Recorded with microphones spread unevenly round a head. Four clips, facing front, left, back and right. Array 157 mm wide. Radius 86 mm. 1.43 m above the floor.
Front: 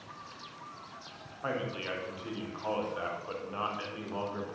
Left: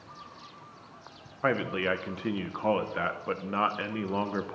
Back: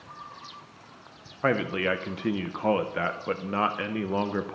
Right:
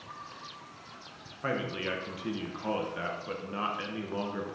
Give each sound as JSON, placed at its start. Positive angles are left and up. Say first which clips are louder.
{"t": 1.4, "sound": "a man speaking", "louder": "left 5 dB, back 10 dB", "azimuth_deg": 160, "distance_m": 1.0}